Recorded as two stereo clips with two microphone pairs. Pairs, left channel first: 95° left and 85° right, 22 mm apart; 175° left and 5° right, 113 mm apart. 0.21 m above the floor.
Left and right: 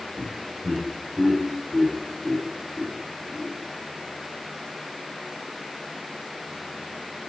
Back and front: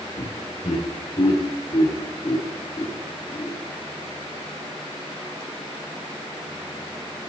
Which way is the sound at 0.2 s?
155° right.